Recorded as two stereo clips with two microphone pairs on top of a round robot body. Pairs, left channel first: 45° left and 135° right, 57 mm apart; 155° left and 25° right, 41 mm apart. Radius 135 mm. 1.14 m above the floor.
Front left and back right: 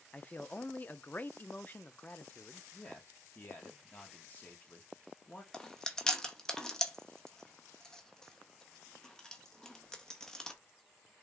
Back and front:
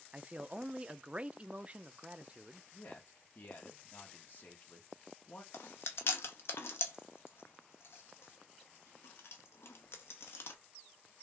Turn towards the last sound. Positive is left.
turn(degrees=125)